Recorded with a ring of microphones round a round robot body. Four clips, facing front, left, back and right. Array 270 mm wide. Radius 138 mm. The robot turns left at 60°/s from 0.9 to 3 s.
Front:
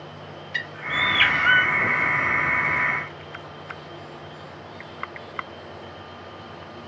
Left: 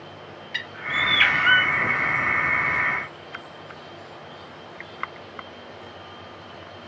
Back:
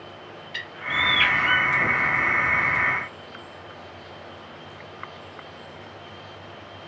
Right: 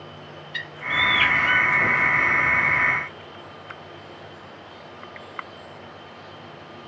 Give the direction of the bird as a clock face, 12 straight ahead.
10 o'clock.